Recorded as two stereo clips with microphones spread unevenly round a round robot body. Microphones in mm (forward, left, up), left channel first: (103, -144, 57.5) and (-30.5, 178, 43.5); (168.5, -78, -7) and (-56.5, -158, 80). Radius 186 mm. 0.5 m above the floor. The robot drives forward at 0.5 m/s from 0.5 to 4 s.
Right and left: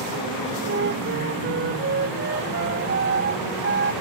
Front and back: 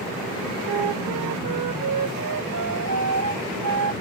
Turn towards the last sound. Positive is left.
turn(degrees=175)